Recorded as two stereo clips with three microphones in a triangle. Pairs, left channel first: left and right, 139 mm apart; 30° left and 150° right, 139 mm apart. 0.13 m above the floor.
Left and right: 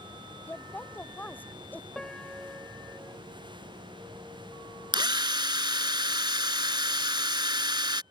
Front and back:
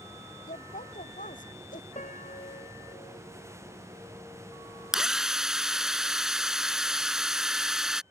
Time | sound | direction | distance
0.5 | a woman speaking | 15° left | ?
1.9 | a piano | 5° left | ?
4.9 | a drill | 65° right | ?